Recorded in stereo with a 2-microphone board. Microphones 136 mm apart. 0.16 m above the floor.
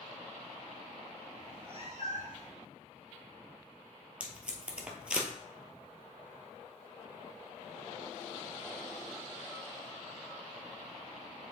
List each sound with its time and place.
1.4 s a cat meowing: 40° right (ahead or behind), 2 m; by 2.5 s 80° right, 1.9 m
4.2 s tape being pulled: 10° right (ahead or behind), 1.3 m